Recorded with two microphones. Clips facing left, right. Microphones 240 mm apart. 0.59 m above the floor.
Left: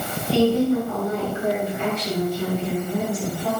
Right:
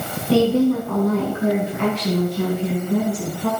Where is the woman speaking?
80° right, 5.5 m.